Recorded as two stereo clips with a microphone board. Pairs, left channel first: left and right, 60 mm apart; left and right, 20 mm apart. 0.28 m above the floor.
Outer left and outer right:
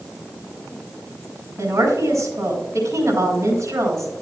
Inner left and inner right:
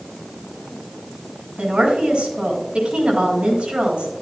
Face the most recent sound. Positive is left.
turn(degrees=-60)  # may be behind; listen again after turning